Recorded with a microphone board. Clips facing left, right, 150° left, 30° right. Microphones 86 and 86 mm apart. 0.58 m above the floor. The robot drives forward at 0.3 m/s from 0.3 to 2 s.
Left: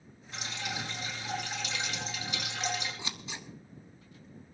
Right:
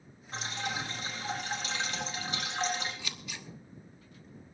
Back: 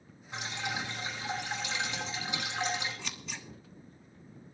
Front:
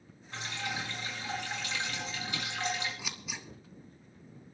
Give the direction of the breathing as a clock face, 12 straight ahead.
No breathing in this recording.